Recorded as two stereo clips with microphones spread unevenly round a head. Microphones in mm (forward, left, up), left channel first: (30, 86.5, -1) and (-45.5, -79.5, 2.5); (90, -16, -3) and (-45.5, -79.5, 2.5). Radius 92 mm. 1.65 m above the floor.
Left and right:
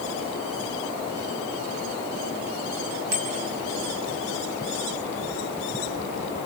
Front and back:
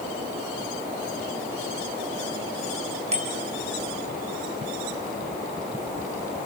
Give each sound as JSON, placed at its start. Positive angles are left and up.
{"t": 3.1, "sound": "a bicycle bell", "azimuth_deg": -110, "distance_m": 3.5}